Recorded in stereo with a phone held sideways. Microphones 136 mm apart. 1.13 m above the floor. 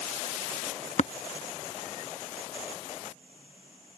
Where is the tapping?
60° left (ahead or behind).